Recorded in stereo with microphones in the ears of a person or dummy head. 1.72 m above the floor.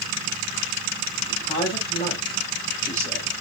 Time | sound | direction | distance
1.3 | a man speaking | 25° left (ahead or behind) | 3.5 m